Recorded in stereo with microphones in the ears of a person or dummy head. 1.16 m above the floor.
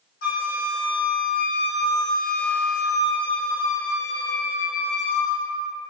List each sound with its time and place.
0.2 s a flute: 60° left (ahead or behind), 0.9 m